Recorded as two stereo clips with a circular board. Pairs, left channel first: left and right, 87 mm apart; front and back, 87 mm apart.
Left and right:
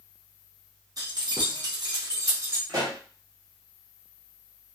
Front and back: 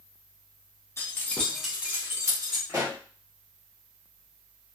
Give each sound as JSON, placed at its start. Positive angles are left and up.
{"t": 1.0, "sound": "keys jangling", "azimuth_deg": -55, "distance_m": 0.8}
{"t": 2.7, "sound": "a pop", "azimuth_deg": -130, "distance_m": 1.2}